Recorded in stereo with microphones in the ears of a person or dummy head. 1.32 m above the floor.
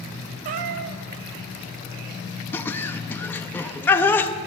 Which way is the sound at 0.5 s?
35° right (ahead or behind).